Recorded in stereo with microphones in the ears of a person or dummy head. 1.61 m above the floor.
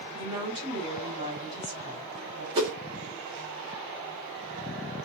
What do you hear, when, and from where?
0.1 s a woman speaking: 40° right (ahead or behind), 1.8 m
2.5 s a whoosh: 15° right (ahead or behind), 0.8 m